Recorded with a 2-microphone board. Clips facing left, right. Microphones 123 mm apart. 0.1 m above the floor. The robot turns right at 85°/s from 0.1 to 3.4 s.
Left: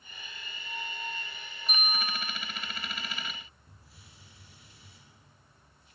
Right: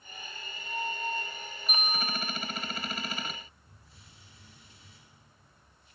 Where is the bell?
5° right, 2 m; by 2.2 s 40° left, 2 m.